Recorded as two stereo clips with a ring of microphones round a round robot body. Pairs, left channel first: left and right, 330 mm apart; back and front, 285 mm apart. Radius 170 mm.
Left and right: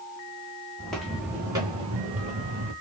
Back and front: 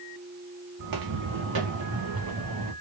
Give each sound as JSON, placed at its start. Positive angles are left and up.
{"t": 0.8, "sound": "footsteps", "azimuth_deg": 5, "distance_m": 1.9}